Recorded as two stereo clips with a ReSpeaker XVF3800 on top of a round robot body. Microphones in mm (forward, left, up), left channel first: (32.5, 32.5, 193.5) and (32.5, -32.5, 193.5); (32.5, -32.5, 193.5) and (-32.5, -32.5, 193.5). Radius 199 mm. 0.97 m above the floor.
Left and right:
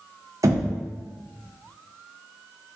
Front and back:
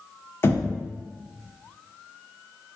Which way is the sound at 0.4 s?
55° right.